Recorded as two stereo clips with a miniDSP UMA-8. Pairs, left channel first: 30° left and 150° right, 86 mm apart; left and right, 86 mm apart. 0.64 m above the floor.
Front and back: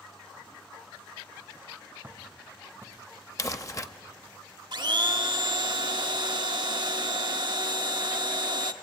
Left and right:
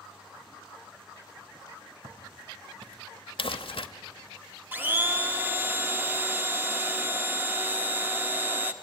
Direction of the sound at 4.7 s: 155° right.